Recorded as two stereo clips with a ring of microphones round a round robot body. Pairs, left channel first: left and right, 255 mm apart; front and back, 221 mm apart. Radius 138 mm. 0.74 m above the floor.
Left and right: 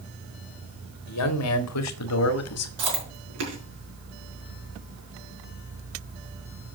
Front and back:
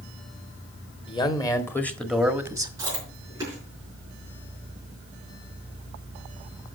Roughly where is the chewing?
Right.